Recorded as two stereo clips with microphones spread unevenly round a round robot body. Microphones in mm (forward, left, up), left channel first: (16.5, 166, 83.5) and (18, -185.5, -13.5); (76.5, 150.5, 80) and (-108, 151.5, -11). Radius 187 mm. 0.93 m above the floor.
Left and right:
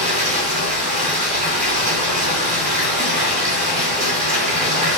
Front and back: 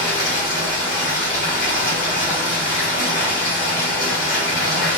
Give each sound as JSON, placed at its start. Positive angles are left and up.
{"t": 0.0, "sound": "running water", "azimuth_deg": -10, "distance_m": 0.7}